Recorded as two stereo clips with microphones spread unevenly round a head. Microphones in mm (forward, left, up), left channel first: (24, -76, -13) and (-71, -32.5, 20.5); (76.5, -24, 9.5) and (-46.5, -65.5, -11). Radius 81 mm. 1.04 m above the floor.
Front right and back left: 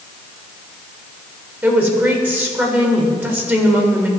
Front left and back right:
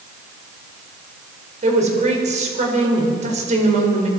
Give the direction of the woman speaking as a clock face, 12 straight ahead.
4 o'clock.